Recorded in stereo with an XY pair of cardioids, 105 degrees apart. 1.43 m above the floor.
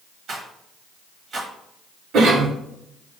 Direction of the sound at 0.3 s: 55° right.